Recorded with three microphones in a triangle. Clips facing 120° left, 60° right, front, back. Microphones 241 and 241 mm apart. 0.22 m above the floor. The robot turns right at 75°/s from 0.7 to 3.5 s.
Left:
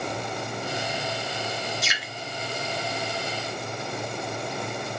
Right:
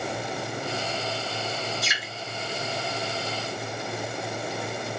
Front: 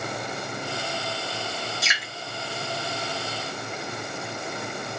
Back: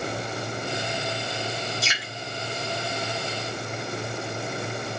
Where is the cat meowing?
No cat meowing in this recording.